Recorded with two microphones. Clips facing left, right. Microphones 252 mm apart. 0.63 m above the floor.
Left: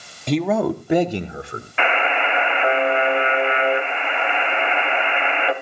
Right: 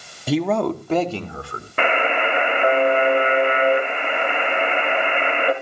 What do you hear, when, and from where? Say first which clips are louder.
0.3 s a man speaking: left 1 dB; 5° right (ahead or behind), 0.9 m; by 1.7 s 20° left (ahead or behind), 2.0 m
1.8 s a buzzer: right 2 dB; 50° right (ahead or behind), 1.7 m